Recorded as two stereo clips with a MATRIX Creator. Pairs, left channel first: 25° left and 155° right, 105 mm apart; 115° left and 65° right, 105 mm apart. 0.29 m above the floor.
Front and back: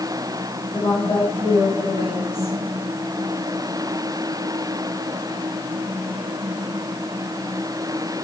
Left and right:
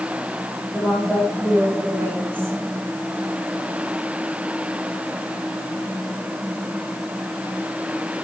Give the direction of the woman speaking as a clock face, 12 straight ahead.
12 o'clock.